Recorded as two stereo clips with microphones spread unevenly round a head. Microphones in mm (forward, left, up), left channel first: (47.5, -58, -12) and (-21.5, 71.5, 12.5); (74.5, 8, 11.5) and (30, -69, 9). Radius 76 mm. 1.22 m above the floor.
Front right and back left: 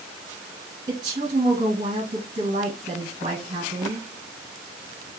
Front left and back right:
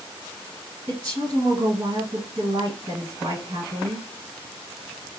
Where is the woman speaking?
175° right, 1.1 m.